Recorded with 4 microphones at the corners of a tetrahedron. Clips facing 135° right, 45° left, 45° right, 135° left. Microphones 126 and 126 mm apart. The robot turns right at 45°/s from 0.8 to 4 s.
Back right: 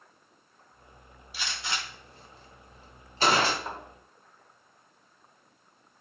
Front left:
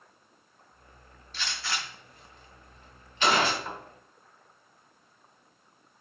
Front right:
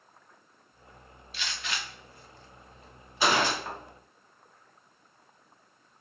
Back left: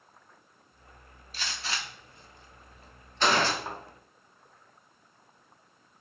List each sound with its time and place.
1.3 s a gunshot: 155° left, 0.6 m; by 3.5 s 110° right, 0.6 m
3.6 s a thud: 170° right, 1.0 m; by 3.8 s 165° right, 1.0 m